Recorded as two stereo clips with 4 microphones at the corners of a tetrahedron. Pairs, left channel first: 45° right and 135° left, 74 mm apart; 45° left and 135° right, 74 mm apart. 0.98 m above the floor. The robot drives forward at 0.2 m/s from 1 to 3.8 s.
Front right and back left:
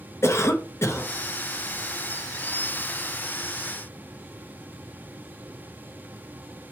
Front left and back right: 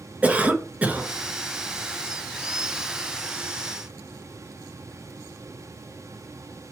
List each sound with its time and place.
0.2 s a cough: 75° right, 0.5 m